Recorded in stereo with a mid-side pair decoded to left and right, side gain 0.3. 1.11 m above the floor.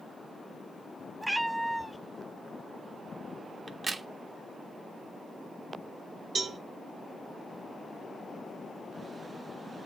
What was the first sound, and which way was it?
A cat meowing, 10° right.